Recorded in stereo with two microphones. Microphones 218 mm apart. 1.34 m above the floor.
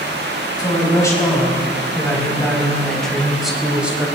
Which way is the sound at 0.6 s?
15° left (ahead or behind).